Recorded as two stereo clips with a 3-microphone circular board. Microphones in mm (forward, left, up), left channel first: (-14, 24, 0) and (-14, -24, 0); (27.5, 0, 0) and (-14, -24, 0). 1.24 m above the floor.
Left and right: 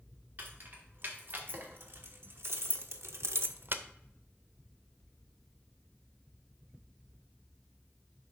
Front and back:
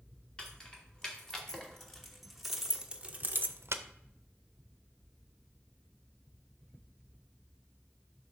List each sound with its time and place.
0.4 s keys jangling: 45° right, 2.5 m; by 3.8 s 135° right, 0.6 m